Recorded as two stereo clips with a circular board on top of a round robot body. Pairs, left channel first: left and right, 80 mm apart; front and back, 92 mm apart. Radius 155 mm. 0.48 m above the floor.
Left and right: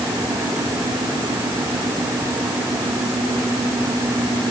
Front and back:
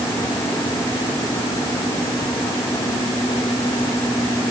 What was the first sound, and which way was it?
Only background noise.